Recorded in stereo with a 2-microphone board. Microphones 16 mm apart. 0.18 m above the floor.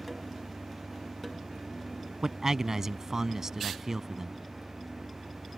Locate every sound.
2.2 s a man speaking: 30° right (ahead or behind)